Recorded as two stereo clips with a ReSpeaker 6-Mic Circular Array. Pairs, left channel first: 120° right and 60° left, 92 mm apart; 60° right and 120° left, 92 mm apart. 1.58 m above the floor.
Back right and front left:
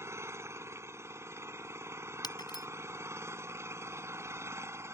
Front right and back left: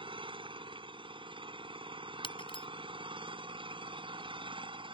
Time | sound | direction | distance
0.0 | an engine running | 115° left | ?
2.2 | breaking glass | 80° right | ?